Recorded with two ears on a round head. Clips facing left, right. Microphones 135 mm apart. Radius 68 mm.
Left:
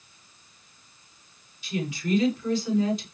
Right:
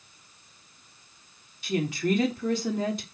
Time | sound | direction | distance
1.6 | a woman speaking | 45° right (ahead or behind) | 5 m